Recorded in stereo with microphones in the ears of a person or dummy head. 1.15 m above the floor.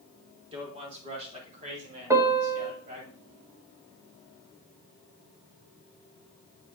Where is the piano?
20° right (ahead or behind), 1.4 m.